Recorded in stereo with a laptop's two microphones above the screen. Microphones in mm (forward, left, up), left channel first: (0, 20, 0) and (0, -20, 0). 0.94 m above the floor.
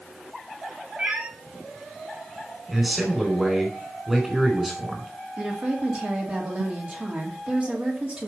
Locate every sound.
1.0 s a cat meowing: 35° right (ahead or behind), 2 m
2.7 s a man speaking: 10° right (ahead or behind), 3.5 m
5.4 s a woman speaking: 30° right (ahead or behind), 2 m